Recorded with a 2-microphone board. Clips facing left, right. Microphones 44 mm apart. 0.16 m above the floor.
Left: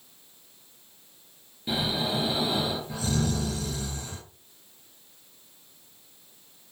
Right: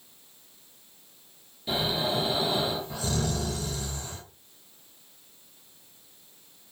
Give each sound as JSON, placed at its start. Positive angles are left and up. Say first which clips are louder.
{"t": 1.7, "sound": "snoring", "louder": "even", "side_deg": 25, "distance_m": 3.0}